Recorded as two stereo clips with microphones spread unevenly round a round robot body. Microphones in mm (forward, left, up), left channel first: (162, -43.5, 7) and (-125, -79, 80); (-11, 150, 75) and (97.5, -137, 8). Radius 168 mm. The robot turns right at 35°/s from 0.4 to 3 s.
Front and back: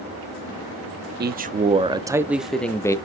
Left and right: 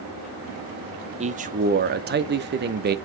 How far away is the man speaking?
About 0.7 m.